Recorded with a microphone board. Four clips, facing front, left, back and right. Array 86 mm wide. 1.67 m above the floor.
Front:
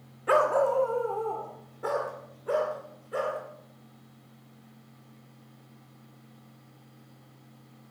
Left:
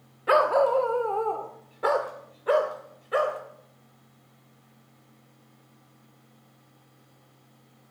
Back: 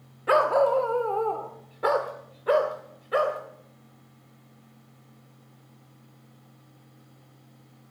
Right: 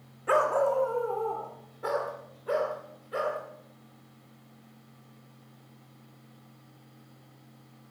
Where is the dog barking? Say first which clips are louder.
Left 4 dB, back 3 dB; 115° left, 1.2 m; by 3.4 s 135° left, 3.5 m.